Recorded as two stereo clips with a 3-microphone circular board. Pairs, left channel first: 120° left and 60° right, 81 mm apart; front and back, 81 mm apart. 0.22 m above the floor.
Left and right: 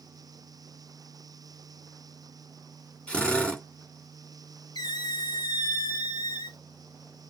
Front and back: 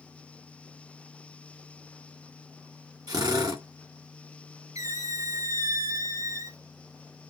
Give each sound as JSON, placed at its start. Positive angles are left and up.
{"t": 3.1, "sound": "a drill", "azimuth_deg": -165, "distance_m": 2.0}
{"t": 4.8, "sound": "a squeak", "azimuth_deg": 140, "distance_m": 0.6}